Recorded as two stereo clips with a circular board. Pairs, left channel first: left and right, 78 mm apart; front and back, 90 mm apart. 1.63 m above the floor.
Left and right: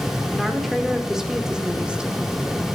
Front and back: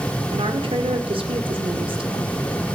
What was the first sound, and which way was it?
A woman speaking, straight behind.